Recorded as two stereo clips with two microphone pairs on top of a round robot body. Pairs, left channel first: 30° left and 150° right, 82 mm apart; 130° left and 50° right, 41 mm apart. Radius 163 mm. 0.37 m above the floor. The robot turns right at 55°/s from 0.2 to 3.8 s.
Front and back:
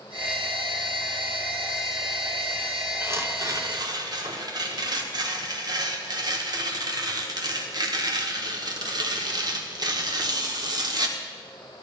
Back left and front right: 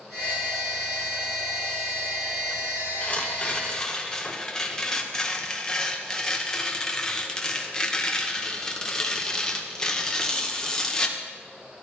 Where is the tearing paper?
145° left, 1.7 m; by 11.2 s 170° right, 1.7 m.